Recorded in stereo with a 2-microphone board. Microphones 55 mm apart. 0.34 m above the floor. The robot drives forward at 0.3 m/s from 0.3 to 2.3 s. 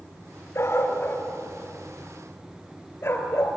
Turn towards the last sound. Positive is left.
turn(degrees=40)  # may be behind; listen again after turning